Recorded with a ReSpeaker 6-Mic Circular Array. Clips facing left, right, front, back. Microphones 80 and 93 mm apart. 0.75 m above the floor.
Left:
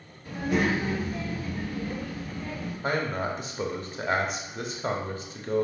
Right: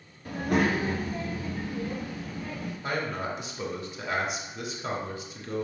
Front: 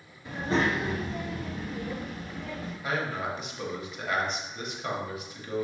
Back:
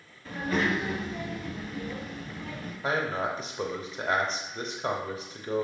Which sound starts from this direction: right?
A child speaking, at 0.2 s.